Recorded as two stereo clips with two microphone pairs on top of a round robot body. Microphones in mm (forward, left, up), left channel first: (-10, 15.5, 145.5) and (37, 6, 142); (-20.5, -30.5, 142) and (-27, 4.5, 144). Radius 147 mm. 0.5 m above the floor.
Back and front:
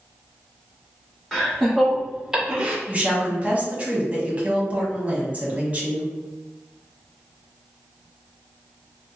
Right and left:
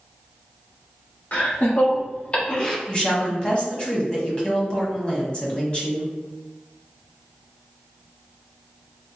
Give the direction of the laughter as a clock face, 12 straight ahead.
3 o'clock.